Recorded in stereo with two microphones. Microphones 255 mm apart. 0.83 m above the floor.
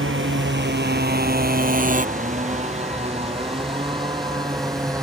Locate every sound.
0.0 s a motorcycle: 50° right (ahead or behind); by 5.0 s 15° right (ahead or behind)